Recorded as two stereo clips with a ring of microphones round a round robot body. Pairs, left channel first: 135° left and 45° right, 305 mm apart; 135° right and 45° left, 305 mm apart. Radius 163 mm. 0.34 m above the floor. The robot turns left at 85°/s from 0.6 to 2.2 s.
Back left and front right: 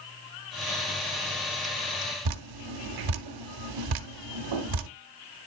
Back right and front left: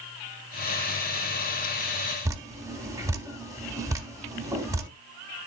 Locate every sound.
2.2 s dripping: 35° right, 0.8 m